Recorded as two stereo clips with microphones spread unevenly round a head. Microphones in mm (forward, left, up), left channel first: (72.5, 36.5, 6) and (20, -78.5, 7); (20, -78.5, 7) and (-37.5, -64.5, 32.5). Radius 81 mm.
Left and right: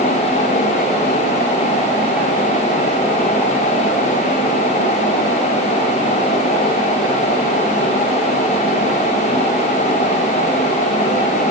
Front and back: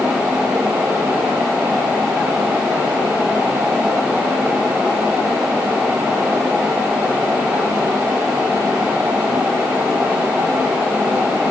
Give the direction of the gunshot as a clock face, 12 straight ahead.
I don't hear a gunshot.